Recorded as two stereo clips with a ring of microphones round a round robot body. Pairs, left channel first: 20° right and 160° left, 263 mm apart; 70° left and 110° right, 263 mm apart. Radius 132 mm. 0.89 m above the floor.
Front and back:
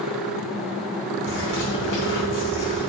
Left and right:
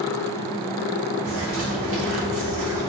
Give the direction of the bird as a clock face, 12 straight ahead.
2 o'clock.